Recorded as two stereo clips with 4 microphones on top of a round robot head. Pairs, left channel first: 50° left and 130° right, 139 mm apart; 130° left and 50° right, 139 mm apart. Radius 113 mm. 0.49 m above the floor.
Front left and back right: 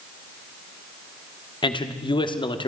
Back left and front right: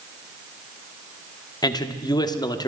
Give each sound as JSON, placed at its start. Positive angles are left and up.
{"t": 1.6, "sound": "a man speaking", "azimuth_deg": 85, "distance_m": 1.4}